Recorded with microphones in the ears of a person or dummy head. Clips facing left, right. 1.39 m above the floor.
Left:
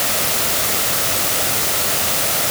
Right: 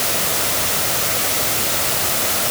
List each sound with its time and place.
Only background noise.